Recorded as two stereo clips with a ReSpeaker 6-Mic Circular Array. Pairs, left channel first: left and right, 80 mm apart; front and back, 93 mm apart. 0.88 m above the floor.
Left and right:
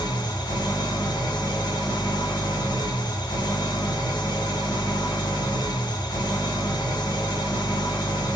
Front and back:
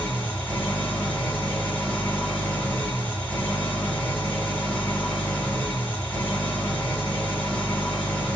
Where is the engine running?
75° left, 1.4 m.